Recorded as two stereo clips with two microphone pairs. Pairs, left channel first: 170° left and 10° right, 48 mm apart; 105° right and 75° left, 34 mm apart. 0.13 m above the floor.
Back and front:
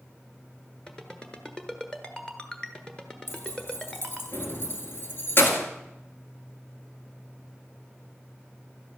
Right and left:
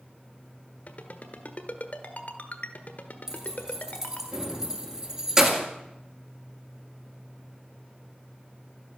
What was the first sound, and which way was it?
A ringtone, 115° right.